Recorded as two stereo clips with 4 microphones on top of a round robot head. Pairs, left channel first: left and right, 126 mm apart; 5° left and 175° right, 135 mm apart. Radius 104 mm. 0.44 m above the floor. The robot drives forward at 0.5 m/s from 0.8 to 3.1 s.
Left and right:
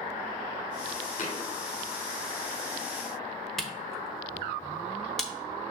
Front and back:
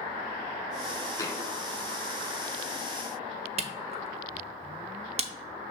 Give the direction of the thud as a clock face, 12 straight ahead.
10 o'clock.